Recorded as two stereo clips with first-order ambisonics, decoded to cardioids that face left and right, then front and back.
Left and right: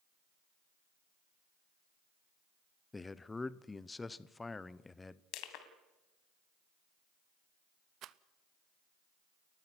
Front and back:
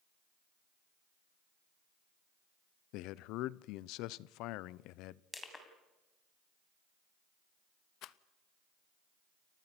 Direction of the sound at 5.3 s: 80° left.